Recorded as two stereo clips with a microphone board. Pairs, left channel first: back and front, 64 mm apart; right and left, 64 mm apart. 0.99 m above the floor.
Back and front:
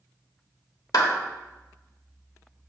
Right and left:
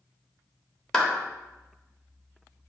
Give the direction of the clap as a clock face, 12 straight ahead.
6 o'clock.